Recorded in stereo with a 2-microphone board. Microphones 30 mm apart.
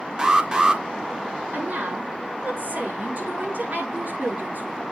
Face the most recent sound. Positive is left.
turn(degrees=-55)  # may be behind; listen again after turning